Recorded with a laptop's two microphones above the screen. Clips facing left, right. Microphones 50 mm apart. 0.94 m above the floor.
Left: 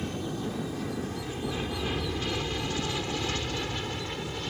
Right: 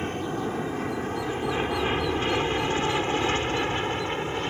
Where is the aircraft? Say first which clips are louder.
Right 4 dB; 40° right (ahead or behind); by 4.5 s 35° right (ahead or behind).